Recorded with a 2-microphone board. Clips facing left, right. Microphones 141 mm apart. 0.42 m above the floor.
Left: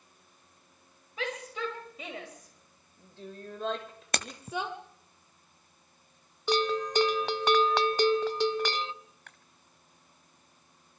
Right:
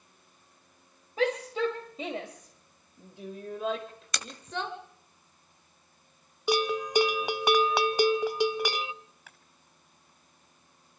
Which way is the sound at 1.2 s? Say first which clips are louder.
Right 8 dB; 40° right (ahead or behind).